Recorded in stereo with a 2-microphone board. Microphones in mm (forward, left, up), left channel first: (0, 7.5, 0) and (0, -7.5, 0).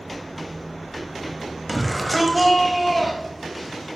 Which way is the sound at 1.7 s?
Centre (ahead or behind).